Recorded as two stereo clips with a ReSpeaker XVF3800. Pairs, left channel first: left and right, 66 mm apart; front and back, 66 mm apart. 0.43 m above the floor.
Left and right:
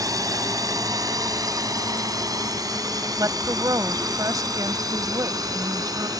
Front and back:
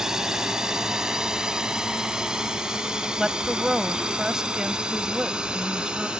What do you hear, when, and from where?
0.0 s a drone: 100° right; by 6.2 s 105° right
3.2 s a woman speaking: 100° right